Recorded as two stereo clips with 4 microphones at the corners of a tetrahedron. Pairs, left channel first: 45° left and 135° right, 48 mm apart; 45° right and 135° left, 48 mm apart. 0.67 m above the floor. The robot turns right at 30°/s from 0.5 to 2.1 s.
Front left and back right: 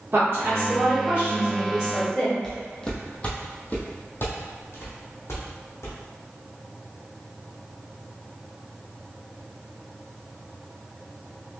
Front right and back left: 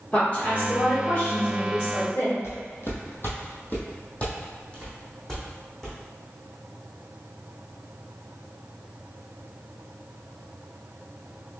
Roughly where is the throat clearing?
I don't hear throat clearing.